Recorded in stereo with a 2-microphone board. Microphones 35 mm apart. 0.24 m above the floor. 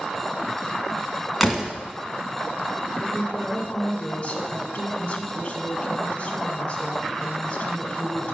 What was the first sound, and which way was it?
A door slam, 5° right (ahead or behind).